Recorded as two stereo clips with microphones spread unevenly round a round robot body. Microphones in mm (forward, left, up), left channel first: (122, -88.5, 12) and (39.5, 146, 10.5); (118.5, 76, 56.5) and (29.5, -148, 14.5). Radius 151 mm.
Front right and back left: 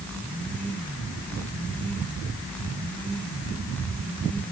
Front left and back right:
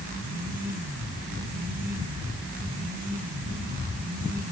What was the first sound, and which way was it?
Only background noise.